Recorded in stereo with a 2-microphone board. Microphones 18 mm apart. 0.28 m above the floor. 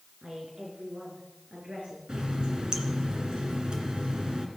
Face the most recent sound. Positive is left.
turn(degrees=-45)  # may be behind; listen again after turning